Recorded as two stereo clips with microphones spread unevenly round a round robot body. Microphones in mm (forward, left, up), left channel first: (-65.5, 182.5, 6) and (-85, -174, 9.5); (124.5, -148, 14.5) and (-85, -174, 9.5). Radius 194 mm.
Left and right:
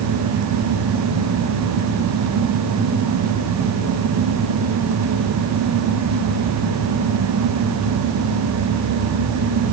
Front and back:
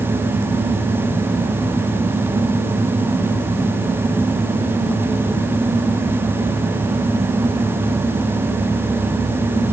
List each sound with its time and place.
Only background noise.